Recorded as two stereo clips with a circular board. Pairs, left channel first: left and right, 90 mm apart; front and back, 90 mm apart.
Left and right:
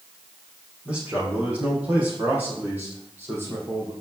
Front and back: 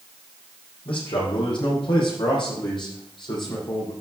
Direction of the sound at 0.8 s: 10° right.